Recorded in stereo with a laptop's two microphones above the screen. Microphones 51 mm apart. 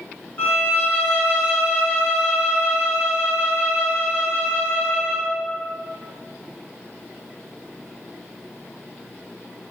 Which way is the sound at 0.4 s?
35° left (ahead or behind).